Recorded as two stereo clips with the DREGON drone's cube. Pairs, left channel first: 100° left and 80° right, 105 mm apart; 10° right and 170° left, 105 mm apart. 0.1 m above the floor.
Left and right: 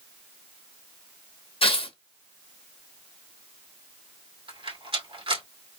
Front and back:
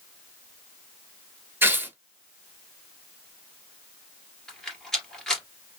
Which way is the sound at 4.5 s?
95° right.